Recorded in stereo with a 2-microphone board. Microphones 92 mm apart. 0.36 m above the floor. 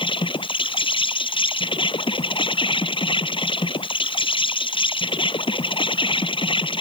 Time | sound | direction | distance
0.0 | an insect | 80° left | ?